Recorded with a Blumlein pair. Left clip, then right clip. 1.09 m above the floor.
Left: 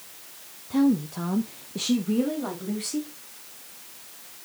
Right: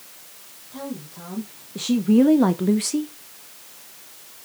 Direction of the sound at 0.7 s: 35° left.